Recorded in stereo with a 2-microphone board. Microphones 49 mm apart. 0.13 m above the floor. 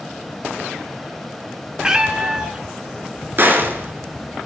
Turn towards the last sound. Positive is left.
turn(degrees=-45)  # may be behind; listen again after turning